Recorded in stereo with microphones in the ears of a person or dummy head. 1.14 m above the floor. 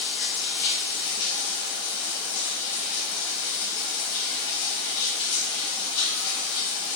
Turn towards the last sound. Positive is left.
turn(degrees=60)  # may be behind; listen again after turning